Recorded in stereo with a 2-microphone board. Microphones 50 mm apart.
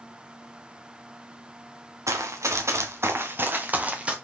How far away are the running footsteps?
About 1.2 m.